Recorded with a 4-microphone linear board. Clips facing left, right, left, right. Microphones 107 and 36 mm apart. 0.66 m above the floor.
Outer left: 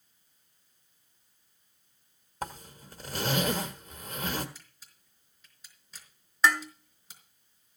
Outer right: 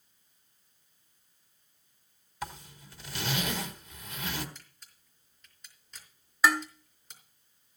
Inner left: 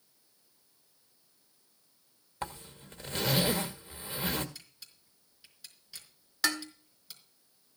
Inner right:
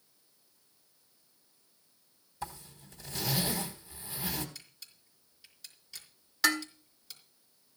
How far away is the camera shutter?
About 4 m.